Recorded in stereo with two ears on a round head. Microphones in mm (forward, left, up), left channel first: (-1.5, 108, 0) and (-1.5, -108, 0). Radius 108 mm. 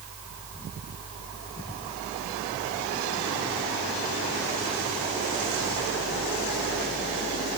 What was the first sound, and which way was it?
Only background noise.